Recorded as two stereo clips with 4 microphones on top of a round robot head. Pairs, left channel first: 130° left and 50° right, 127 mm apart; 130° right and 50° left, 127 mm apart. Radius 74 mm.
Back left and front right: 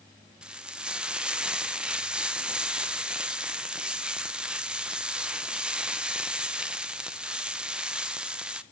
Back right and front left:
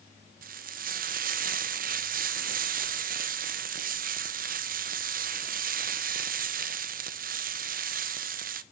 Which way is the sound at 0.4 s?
30° left.